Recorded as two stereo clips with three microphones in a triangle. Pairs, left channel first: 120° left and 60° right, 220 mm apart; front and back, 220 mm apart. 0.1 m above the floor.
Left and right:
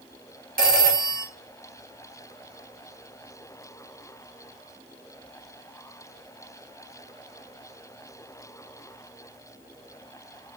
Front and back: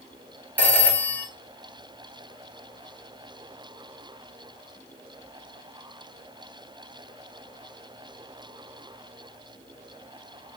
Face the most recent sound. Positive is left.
turn(degrees=-80)